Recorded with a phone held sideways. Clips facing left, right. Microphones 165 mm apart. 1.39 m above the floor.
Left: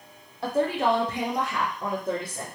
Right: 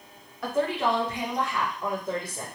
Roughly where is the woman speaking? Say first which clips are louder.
Left 2 dB; left.